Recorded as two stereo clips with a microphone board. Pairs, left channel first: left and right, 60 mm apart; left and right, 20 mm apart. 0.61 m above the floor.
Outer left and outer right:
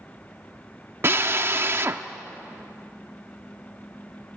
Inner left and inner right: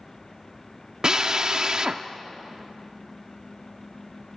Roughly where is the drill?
Right.